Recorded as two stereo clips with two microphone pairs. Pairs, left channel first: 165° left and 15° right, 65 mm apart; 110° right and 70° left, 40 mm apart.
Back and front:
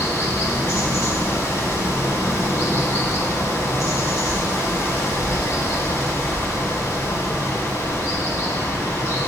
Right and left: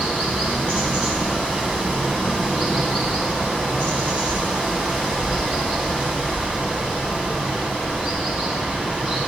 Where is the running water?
130° left, 1.9 m.